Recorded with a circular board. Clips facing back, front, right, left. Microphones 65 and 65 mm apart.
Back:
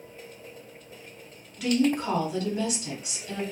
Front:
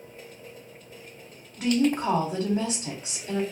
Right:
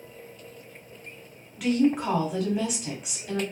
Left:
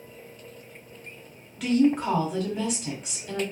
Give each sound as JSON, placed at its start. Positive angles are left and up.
{"t": 1.6, "sound": "a woman speaking", "azimuth_deg": -5, "distance_m": 1.1}